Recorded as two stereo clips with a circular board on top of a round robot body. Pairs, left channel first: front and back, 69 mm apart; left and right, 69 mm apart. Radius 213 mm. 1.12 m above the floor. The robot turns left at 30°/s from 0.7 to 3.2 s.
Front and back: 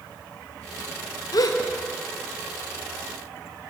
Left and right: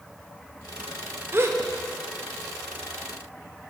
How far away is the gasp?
About 1.3 m.